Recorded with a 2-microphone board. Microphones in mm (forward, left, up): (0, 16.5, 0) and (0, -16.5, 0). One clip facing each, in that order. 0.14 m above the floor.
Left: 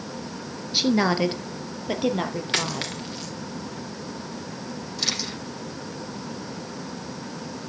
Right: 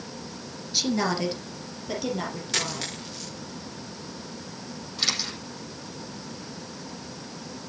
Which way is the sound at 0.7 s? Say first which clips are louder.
Left 4 dB; 25° left (ahead or behind).